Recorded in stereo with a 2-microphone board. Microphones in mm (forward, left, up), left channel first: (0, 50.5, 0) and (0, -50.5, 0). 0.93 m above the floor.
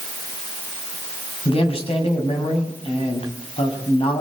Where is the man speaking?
80° left, 6.5 m.